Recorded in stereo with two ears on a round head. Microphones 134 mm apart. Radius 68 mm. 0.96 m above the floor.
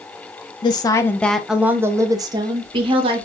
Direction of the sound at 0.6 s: 30° left (ahead or behind).